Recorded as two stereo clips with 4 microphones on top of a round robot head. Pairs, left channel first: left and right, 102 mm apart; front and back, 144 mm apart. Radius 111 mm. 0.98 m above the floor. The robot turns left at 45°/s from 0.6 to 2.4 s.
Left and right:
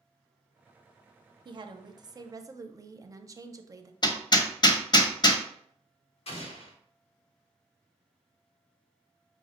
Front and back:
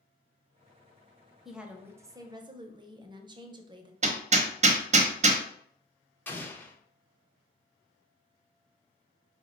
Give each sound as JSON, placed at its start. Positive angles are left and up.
{"t": 1.4, "sound": "a woman speaking", "azimuth_deg": -95, "distance_m": 0.6}
{"t": 4.0, "sound": "hammering", "azimuth_deg": 140, "distance_m": 0.7}
{"t": 6.3, "sound": "an explosion", "azimuth_deg": 75, "distance_m": 0.9}